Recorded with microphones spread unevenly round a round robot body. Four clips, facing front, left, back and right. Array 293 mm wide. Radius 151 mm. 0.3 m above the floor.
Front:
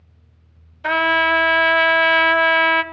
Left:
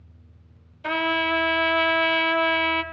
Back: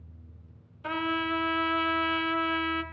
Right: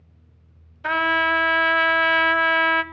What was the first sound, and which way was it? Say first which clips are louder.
A trumpet: right 3 dB, front 12 dB; straight ahead.